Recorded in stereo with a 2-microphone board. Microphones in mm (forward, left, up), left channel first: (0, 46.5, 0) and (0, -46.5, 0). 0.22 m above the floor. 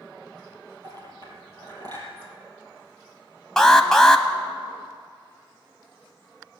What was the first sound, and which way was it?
A clink, 45° right (ahead or behind).